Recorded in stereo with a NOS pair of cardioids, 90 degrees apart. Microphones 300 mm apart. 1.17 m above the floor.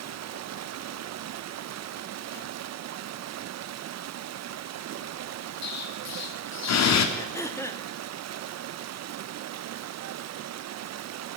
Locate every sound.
0.0 s running water: 60° right, 0.8 m
5.6 s an explosion: 60° left, 3 m
7.2 s throat clearing: 10° left, 2 m